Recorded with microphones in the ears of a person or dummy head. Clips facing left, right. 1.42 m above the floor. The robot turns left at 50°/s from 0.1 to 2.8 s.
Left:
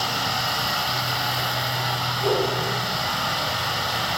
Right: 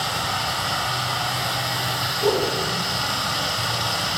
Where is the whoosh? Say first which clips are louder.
Right 2 dB; 80° right, 1.5 m; by 2.5 s 85° right, 1.5 m.